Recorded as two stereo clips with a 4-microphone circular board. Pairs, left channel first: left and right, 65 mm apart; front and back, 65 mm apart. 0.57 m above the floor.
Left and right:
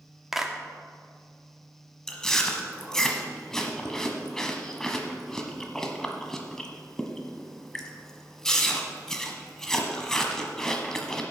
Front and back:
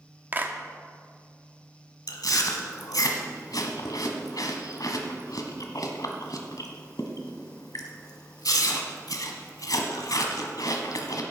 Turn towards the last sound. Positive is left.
turn(degrees=10)